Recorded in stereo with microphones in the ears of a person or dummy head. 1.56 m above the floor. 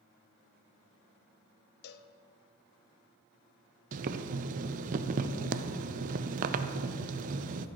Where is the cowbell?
65° left (ahead or behind), 0.6 m.